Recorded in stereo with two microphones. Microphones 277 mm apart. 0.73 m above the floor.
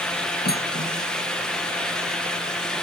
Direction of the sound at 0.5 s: 35° left (ahead or behind).